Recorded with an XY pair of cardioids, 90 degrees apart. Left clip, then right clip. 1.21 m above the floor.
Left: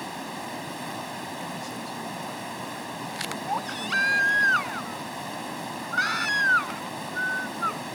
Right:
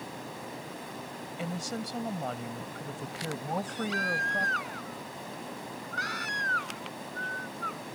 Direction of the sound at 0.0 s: 65° left.